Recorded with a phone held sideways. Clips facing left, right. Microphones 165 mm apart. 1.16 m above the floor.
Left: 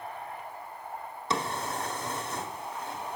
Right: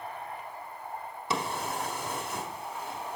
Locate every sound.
1.3 s a drawer: 10° right (ahead or behind), 0.9 m